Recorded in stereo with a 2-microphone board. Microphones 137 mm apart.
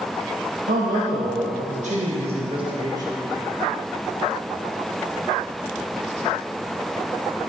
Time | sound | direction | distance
0.7 | a man speaking | 85° right | 1.5 m